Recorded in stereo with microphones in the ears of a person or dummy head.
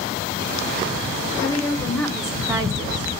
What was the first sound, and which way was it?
A woman speaking, 15° left (ahead or behind).